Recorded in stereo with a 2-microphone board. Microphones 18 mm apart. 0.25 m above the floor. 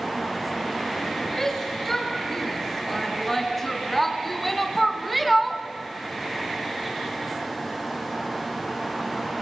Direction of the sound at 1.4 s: 20° left (ahead or behind).